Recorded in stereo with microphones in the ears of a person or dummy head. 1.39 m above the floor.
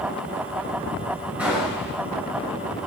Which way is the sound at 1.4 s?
10° right (ahead or behind).